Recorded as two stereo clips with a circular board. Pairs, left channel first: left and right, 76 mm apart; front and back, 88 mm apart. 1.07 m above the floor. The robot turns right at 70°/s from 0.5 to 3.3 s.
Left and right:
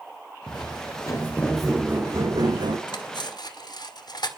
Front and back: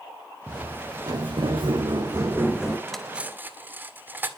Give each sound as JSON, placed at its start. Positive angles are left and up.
{"t": 0.5, "sound": "footsteps", "azimuth_deg": 95, "distance_m": 5.5}
{"t": 2.9, "sound": "cutlery clinking", "azimuth_deg": 80, "distance_m": 1.9}